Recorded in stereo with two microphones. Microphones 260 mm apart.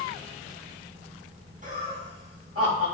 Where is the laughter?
30° right (ahead or behind), 0.7 m; by 2.9 s 60° right (ahead or behind), 1.2 m.